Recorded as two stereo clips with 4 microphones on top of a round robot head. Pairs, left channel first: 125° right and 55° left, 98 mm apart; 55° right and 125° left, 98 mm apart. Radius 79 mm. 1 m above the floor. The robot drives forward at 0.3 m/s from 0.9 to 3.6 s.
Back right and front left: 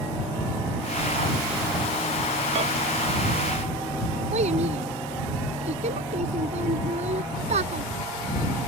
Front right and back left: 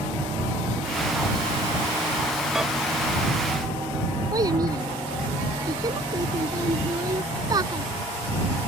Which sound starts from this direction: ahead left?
A microwave, at 2.5 s.